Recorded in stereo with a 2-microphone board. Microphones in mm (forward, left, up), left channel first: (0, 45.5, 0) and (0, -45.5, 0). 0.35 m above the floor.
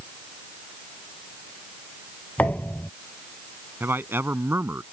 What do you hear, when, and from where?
2.4 s a thud: 15° left (ahead or behind)
3.8 s a man speaking: 25° right (ahead or behind)